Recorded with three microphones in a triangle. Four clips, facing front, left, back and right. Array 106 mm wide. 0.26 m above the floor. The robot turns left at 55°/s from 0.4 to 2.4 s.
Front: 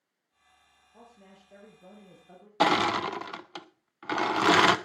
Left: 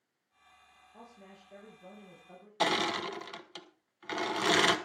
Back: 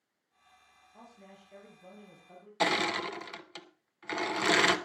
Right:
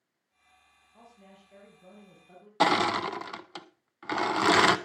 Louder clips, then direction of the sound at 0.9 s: Left 1 dB, even; 60° left.